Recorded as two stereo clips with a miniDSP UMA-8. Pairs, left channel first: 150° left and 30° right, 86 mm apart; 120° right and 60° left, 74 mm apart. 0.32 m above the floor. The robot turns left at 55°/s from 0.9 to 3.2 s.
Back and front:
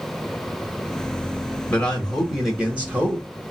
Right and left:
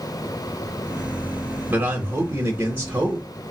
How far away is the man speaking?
About 1.0 m.